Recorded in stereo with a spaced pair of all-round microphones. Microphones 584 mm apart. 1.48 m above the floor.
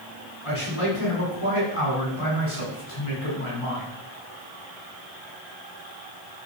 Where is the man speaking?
65° left (ahead or behind), 5.5 m.